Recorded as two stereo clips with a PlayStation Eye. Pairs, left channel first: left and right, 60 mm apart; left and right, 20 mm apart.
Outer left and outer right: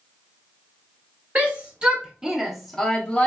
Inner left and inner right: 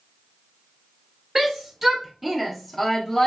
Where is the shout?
25° right (ahead or behind), 1.0 m; by 3.3 s 20° left (ahead or behind), 0.6 m.